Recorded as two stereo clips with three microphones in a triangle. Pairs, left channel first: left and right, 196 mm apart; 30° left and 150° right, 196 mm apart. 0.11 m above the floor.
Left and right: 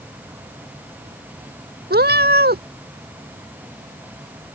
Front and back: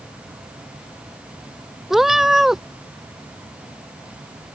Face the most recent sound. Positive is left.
turn(degrees=-60)